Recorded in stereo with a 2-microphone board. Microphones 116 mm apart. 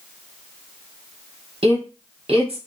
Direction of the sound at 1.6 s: 55° right (ahead or behind).